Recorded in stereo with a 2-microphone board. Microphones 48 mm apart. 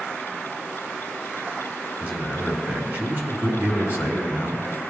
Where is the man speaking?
45° right (ahead or behind), 1.8 m.